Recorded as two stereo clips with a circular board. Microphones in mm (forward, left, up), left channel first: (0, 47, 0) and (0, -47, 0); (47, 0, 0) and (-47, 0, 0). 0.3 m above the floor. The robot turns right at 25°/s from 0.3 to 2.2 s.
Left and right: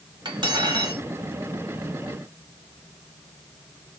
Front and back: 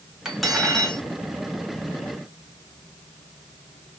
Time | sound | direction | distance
0.2 | cutlery clinking | 95° right | 1.1 m